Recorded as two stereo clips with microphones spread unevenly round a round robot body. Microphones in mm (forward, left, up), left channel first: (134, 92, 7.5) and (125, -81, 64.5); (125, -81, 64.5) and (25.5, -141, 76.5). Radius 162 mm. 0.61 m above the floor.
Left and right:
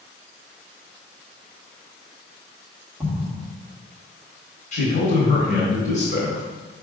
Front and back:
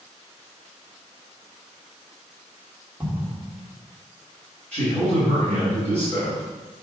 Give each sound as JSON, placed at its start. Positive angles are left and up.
{"t": 3.0, "sound": "an explosion", "azimuth_deg": 145, "distance_m": 1.2}
{"t": 4.7, "sound": "a man speaking", "azimuth_deg": 105, "distance_m": 2.0}